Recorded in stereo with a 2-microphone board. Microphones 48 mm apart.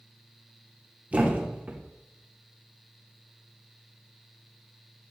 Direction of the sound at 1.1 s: 30° right (ahead or behind).